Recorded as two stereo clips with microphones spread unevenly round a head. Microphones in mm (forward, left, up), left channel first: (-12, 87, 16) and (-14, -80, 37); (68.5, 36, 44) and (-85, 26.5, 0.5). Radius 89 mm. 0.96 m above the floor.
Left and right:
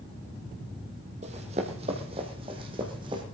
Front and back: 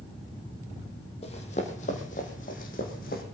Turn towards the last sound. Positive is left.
turn(degrees=-30)